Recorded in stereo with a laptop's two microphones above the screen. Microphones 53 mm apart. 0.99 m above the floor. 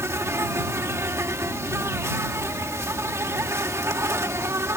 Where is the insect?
60° right (ahead or behind).